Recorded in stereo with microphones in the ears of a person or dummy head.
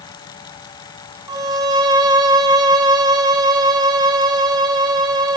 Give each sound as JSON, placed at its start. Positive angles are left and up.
{"t": 1.3, "sound": "a violin", "side_deg": -20, "distance_m": 0.8}